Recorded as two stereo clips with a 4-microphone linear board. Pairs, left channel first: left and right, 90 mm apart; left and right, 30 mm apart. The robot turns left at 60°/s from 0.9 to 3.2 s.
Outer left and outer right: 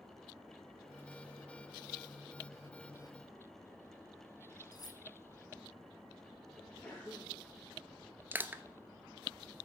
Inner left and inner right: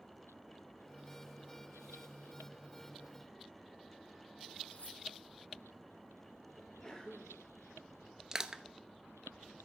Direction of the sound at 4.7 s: 50° left (ahead or behind).